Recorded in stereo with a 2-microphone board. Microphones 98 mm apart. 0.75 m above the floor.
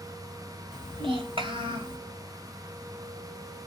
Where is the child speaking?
60° right (ahead or behind), 1.1 m.